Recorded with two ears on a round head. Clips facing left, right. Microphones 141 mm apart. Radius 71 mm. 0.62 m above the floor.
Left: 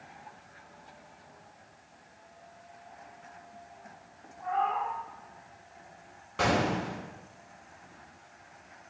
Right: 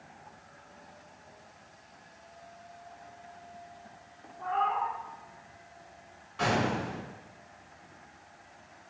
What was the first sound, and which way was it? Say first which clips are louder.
A cat meowing: even; 80° right.